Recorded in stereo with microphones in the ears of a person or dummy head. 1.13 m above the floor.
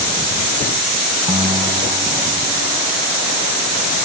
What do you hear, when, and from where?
1.3 s a guitar: 25° right (ahead or behind)